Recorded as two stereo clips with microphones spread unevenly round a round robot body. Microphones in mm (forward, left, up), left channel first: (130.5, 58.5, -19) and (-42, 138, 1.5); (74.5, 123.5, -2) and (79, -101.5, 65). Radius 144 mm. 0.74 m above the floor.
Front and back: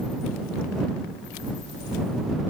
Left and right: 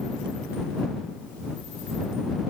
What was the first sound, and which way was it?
Only background noise.